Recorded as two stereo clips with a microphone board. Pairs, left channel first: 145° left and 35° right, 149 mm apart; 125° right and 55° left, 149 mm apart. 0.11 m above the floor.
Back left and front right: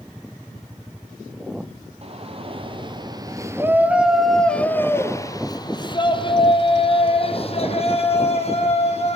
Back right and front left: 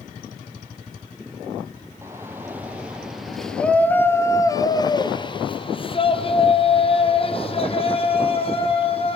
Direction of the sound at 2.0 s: 10° right.